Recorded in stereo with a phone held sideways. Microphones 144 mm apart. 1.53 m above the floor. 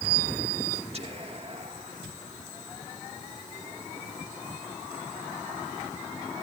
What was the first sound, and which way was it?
Whispering, 45° right (ahead or behind).